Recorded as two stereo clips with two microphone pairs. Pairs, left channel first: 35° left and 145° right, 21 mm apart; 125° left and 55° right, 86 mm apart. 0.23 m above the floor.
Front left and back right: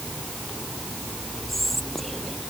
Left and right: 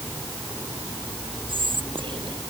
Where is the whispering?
45° right.